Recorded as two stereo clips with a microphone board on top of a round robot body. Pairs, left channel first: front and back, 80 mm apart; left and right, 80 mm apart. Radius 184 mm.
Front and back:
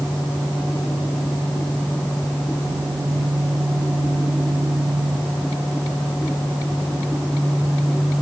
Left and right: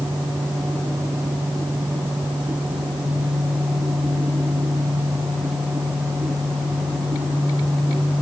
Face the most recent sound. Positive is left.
No sound to turn to.